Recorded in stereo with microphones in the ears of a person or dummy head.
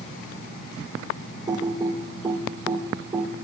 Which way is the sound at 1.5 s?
20° right (ahead or behind).